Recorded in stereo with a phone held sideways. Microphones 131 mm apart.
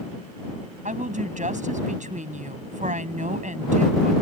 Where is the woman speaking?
75° right (ahead or behind).